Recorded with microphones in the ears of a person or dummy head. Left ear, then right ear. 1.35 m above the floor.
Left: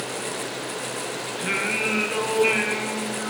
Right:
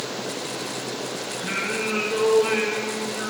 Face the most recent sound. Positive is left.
turn(degrees=30)  # may be behind; listen again after turning